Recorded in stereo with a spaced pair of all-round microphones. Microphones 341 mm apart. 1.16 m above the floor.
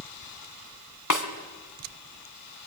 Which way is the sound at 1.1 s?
60° left (ahead or behind).